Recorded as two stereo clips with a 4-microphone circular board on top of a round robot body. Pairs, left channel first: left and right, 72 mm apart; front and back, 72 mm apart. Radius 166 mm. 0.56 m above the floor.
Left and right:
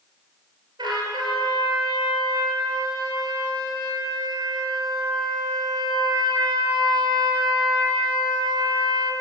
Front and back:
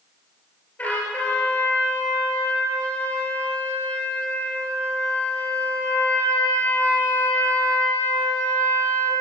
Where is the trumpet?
70° right, 5 m.